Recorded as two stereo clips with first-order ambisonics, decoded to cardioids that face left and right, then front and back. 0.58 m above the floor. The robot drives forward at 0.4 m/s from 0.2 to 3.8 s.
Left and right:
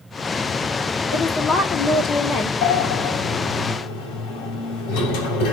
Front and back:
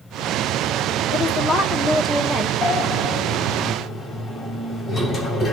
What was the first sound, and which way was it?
A woman speaking, 40° left.